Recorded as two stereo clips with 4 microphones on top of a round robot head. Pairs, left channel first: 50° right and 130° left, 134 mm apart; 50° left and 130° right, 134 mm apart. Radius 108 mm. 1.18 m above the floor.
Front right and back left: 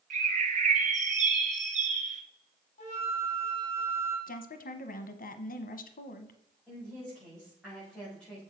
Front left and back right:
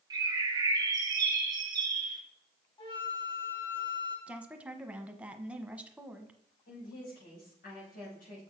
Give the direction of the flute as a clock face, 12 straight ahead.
12 o'clock.